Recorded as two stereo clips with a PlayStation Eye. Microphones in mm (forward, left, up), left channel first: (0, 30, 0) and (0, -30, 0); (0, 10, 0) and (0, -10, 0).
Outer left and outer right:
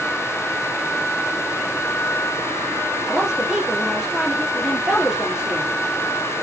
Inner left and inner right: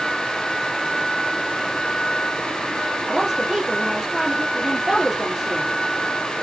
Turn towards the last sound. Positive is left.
turn(degrees=-10)  # may be behind; listen again after turning